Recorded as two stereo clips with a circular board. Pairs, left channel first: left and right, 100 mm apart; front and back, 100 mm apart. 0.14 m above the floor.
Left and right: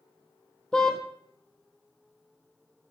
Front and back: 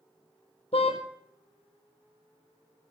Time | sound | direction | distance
0.7 | a car horn | 10° left | 2.5 m